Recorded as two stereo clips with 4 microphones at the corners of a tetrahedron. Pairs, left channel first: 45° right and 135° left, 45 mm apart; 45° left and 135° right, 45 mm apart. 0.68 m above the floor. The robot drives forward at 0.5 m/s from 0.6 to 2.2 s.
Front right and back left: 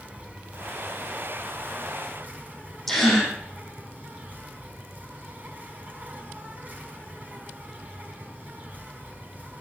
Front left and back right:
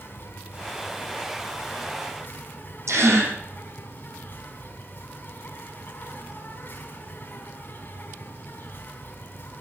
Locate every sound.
0.0 s an insect: 80° left, 4.5 m; by 9.6 s 90° left, 4 m
2.9 s a gasp: 125° right, 5.5 m